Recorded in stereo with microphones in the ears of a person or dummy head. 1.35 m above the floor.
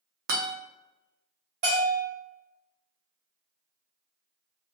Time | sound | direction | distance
0.3 | a guitar | 60° right (ahead or behind) | 0.7 m
1.6 | a bell | 45° right (ahead or behind) | 1.2 m